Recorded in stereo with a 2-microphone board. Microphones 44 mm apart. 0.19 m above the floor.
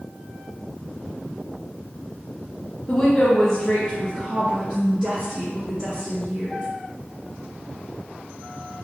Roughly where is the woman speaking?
Left.